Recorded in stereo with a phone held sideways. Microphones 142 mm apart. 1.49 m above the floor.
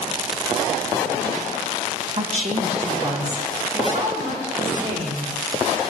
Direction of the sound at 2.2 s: 50° right (ahead or behind).